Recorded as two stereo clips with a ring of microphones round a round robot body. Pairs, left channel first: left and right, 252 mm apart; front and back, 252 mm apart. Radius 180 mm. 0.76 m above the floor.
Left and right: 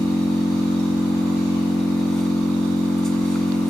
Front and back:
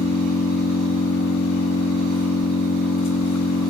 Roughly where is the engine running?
Ahead.